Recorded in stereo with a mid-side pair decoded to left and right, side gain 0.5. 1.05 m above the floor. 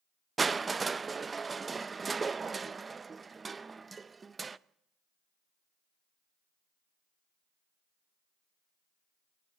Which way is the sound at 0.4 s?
30° right.